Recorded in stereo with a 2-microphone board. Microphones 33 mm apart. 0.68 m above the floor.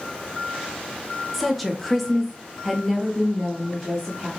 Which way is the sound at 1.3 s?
Centre (ahead or behind).